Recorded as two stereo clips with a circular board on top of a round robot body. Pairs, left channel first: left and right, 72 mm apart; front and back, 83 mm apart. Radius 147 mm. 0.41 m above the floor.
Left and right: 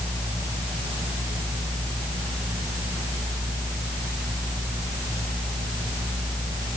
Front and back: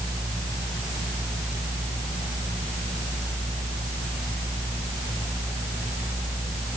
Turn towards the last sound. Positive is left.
No sound to turn to.